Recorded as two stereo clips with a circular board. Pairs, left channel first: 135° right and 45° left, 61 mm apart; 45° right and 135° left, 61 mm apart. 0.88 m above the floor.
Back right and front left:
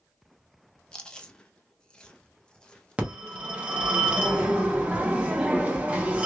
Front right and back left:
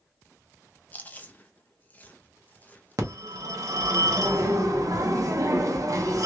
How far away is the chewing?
About 0.7 m.